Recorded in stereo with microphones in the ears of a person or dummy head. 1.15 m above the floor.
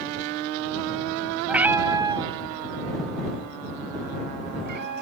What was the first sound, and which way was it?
A cat meowing, centre (ahead or behind).